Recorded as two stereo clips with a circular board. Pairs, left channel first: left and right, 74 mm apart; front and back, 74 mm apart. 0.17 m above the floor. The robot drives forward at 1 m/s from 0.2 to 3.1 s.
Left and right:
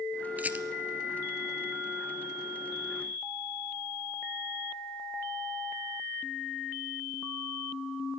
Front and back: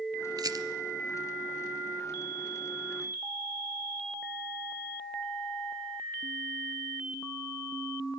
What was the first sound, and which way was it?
A rattle, 155° right.